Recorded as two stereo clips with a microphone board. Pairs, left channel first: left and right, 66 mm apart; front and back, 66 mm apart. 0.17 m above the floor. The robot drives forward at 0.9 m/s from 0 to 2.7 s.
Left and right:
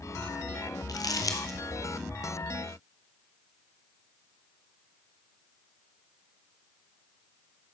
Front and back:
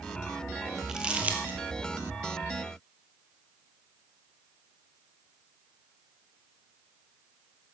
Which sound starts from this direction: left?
Crumpling, at 0.9 s.